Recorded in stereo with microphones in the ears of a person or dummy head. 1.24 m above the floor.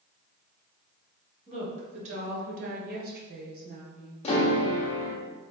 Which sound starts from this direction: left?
A piano, at 4.2 s.